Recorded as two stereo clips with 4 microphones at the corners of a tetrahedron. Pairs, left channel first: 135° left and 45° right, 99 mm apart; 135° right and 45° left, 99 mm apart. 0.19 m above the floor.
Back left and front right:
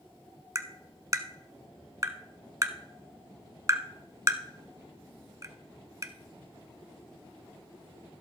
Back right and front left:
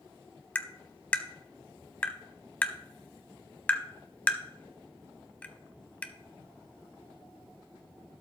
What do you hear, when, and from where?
0.6 s tapping: 70° right, 0.8 m